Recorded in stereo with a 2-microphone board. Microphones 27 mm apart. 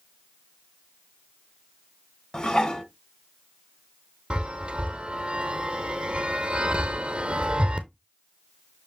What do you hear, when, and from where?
2.3 s dishes clattering: 25° left (ahead or behind), 0.8 m
4.3 s a chime: 45° right (ahead or behind), 0.9 m